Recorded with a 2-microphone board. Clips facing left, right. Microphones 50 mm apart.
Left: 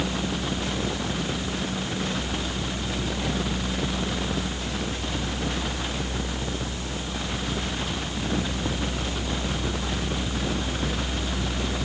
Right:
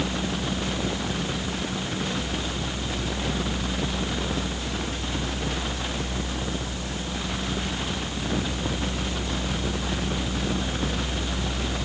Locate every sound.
Only background noise.